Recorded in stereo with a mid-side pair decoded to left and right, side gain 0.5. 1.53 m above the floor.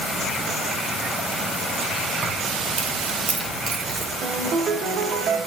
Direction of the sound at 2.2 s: 30° right.